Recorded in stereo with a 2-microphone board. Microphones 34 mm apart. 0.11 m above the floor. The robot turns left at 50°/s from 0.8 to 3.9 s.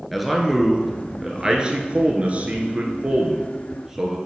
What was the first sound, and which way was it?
A man speaking, 5° right.